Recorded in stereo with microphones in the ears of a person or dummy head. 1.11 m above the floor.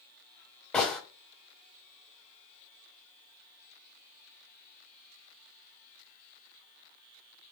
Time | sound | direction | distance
0.7 | a gunshot | 10° left (ahead or behind) | 0.7 m